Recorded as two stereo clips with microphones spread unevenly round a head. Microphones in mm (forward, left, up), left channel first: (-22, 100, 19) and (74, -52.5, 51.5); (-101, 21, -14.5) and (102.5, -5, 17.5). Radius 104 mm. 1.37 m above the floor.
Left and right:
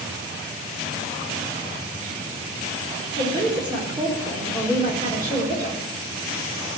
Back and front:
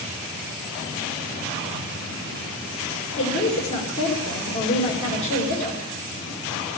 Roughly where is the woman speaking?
Behind right.